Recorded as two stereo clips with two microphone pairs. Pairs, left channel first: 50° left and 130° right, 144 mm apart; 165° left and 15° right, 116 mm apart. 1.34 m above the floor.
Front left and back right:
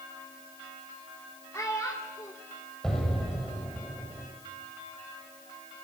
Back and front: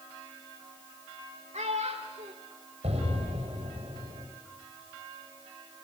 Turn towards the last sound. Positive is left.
turn(degrees=-40)